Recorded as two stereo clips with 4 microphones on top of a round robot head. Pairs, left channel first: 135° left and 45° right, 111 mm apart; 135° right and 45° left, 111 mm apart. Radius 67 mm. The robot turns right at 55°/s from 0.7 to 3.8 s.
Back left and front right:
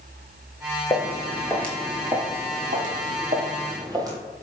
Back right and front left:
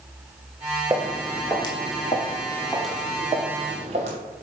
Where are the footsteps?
100° left, 0.7 m; by 4.2 s 15° left, 1.7 m.